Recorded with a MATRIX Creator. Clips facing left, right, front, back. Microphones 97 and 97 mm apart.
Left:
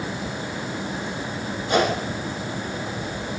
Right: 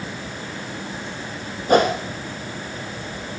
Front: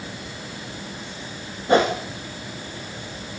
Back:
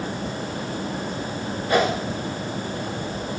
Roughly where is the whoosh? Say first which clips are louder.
Right 5 dB, front 3 dB; ahead right.